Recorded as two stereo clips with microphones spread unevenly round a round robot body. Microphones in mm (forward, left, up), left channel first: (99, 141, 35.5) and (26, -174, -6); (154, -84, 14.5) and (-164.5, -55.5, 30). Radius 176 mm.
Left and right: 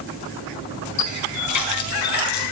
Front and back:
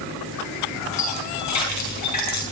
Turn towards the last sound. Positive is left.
turn(degrees=40)